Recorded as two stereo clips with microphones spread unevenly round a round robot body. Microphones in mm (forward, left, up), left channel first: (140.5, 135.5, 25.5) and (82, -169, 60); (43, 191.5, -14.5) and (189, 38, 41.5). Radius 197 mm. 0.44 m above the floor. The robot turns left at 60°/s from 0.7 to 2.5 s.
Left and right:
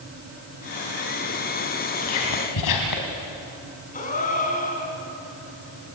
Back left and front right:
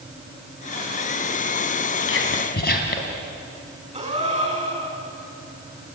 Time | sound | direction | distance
2.0 | whispering | 125° left | 3 m
3.9 | a gasp | 15° left | 5 m